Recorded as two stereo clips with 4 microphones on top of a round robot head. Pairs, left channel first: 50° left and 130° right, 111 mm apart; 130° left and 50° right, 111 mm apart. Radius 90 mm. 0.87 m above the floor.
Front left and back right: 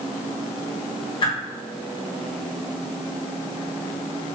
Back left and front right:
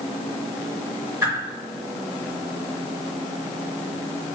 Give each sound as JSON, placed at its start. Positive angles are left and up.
{"t": 1.2, "sound": "a whoosh", "azimuth_deg": 20, "distance_m": 1.8}